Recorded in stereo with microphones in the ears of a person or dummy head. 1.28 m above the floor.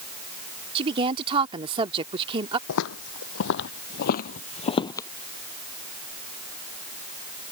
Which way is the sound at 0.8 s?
30° right (ahead or behind).